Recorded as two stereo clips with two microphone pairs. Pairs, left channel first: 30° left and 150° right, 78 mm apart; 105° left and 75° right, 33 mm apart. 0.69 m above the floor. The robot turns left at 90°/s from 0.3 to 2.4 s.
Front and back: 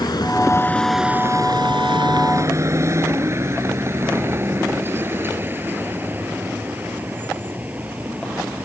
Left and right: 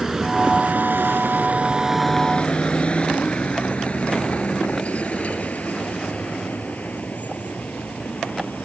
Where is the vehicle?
Straight ahead; by 8.7 s 140° left.